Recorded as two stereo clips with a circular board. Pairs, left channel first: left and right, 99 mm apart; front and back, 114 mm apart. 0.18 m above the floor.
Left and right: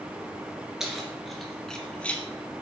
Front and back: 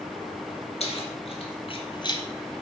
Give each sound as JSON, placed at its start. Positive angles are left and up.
{"t": 0.8, "sound": "keys jangling", "azimuth_deg": -5, "distance_m": 2.0}